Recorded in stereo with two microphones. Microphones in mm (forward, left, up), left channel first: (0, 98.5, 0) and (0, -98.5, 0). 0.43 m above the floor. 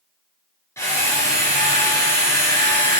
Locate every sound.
0.8 s a drill: 15° left (ahead or behind), 3 m